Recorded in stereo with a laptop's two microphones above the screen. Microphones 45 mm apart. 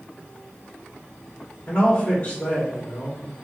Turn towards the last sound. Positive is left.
turn(degrees=45)  # may be behind; listen again after turning